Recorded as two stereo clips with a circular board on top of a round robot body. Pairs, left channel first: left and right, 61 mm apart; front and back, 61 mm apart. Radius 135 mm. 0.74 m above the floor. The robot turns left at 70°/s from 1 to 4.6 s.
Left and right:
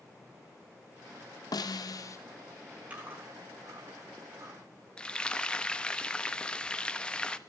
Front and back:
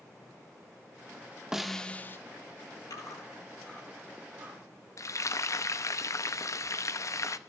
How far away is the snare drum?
About 1.0 m.